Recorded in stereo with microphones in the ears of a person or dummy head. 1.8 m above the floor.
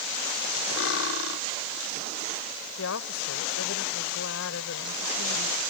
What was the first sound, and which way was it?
Cutlery clinking, 70° left (ahead or behind).